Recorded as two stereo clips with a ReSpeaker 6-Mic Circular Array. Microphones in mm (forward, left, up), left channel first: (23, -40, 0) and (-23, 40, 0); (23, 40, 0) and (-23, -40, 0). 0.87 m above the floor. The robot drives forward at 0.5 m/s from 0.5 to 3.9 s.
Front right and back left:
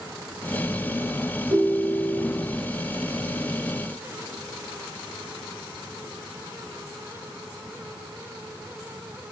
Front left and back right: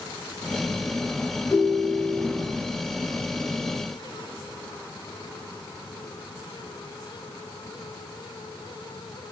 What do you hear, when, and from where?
1.5 s a ringtone: 140° left, 1.4 m; by 2.5 s 150° left, 1.9 m